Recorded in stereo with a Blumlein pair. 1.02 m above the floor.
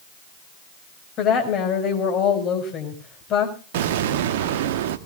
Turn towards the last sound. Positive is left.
turn(degrees=-55)